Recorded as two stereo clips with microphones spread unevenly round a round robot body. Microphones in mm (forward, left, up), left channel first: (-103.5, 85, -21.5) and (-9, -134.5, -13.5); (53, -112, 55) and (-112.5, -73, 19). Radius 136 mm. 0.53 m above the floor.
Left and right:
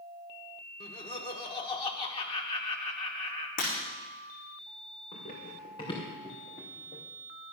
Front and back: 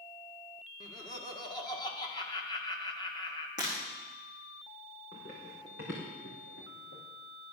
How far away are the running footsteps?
About 3.5 m.